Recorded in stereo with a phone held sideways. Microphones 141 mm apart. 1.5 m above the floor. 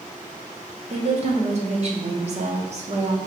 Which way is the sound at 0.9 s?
50° right (ahead or behind).